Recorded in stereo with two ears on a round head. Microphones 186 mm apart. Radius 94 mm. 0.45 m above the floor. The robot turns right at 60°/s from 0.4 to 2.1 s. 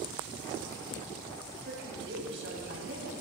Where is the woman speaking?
45° right (ahead or behind), 3 m; by 3.1 s 65° right (ahead or behind), 3 m.